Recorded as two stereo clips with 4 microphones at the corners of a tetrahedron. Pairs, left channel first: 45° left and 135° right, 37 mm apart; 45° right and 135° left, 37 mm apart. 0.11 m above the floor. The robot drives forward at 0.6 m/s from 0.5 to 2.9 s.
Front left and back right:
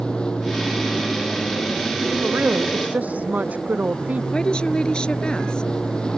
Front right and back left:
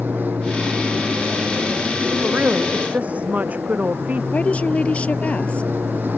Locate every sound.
0.0 s an aircraft: 110° left
2.2 s a woman speaking: 175° right
4.3 s a woman speaking: 10° right